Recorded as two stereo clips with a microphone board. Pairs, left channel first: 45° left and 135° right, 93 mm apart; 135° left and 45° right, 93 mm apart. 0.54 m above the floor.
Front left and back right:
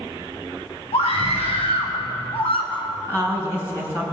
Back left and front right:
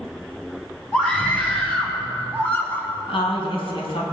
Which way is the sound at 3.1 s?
110° left.